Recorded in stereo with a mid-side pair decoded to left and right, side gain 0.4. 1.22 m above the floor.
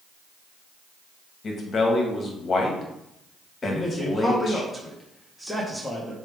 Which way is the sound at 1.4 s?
55° left.